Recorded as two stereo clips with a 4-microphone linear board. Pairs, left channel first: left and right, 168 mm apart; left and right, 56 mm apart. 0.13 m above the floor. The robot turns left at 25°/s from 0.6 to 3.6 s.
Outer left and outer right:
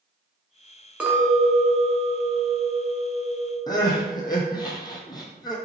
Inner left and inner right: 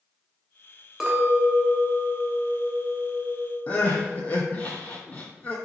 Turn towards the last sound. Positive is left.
turn(degrees=25)  # may be behind; listen again after turning